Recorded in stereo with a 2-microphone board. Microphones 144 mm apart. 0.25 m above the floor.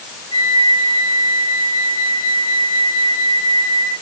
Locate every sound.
0.3 s a flute: 40° left (ahead or behind), 6.5 m